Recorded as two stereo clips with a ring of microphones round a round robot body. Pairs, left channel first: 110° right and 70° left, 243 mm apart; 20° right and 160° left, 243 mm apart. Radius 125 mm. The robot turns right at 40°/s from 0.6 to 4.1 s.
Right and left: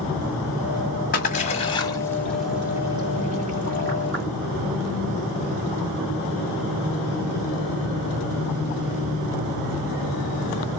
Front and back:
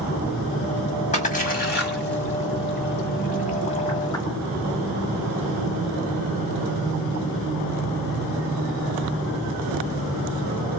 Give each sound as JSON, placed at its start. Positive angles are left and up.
{"t": 1.1, "sound": "a splash", "azimuth_deg": -75, "distance_m": 1.5}